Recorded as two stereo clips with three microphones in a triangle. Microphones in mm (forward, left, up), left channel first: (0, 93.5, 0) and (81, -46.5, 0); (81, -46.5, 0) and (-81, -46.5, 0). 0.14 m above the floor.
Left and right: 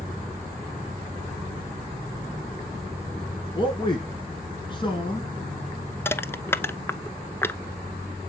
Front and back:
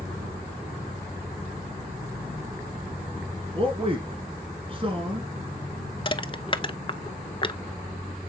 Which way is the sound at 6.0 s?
45° left.